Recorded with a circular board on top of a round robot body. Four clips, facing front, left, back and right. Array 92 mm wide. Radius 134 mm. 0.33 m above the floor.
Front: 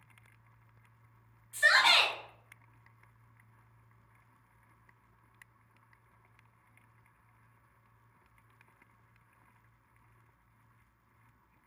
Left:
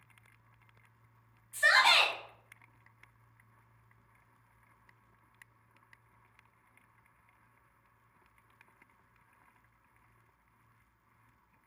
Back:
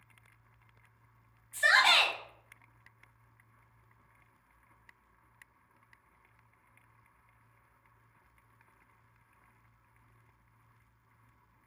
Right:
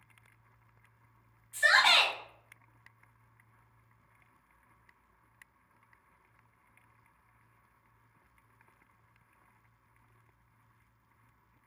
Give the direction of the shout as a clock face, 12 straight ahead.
1 o'clock.